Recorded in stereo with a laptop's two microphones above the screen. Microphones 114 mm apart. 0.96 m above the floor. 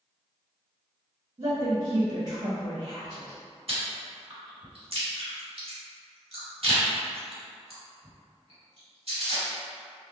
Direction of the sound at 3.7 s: 55° right (ahead or behind).